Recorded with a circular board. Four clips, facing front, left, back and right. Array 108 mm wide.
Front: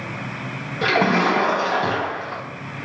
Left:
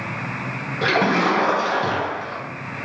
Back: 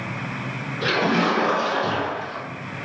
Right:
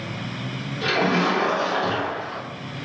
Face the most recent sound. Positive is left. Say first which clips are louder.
# left 2 dB, front 3 dB
turn(degrees=35)